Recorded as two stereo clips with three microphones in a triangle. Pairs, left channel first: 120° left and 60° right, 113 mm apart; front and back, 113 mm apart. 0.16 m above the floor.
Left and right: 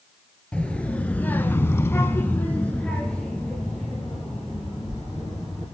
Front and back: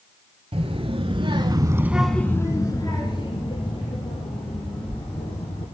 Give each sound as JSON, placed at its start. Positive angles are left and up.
{"t": 0.5, "sound": "a child speaking", "azimuth_deg": -160, "distance_m": 1.6}